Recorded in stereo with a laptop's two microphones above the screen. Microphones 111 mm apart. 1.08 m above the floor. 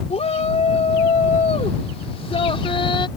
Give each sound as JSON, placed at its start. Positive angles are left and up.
{"t": 0.1, "sound": "a shout", "side_deg": 80}